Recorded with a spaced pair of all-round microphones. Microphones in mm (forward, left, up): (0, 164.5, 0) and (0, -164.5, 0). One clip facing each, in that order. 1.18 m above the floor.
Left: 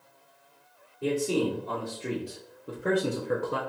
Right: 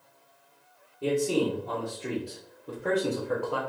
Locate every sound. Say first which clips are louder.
1.0 s a man speaking: right 1 dB; centre (ahead or behind), 1.7 m; by 3.6 s 30° left (ahead or behind), 0.6 m